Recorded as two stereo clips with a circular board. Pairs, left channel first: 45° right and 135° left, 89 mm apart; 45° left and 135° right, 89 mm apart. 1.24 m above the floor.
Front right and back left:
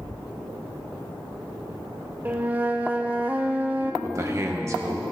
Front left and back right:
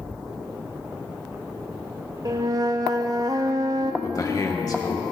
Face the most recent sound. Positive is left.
turn(degrees=85)